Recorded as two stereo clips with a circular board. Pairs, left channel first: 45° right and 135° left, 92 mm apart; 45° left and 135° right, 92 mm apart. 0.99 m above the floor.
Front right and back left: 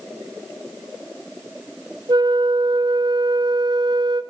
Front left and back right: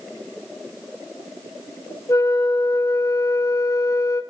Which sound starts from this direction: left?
A flute, at 2.1 s.